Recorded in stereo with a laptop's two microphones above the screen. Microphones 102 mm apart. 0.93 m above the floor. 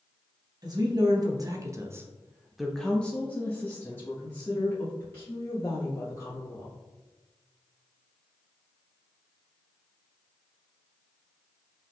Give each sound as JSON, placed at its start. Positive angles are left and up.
{"t": 0.6, "sound": "a woman speaking", "side_deg": -35, "distance_m": 1.0}